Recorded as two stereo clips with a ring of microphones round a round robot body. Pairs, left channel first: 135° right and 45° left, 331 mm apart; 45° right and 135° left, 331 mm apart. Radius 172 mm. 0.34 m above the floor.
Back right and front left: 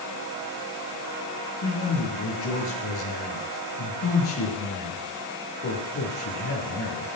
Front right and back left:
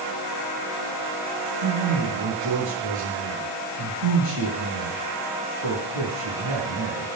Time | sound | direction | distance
1.6 | a man speaking | 175° left | 7 m